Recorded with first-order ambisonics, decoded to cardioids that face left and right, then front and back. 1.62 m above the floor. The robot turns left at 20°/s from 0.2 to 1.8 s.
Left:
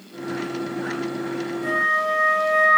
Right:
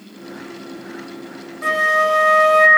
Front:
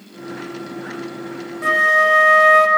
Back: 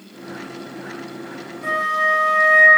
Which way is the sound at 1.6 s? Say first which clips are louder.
Right 5 dB, front 5 dB; 45° right.